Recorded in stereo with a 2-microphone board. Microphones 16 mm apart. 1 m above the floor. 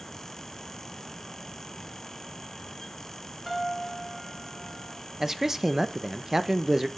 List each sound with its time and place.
3.5 s a piano: 15° right (ahead or behind), 3 m
5.2 s a man speaking: 25° right (ahead or behind), 0.7 m